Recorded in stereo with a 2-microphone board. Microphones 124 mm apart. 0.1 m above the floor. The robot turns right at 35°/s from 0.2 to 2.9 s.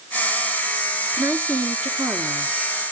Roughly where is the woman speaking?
Centre.